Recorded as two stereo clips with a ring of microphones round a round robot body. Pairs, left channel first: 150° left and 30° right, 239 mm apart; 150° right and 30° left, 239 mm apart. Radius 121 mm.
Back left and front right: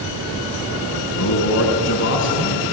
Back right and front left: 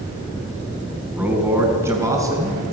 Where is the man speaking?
115° left, 4.5 m; by 2.6 s 105° left, 5 m.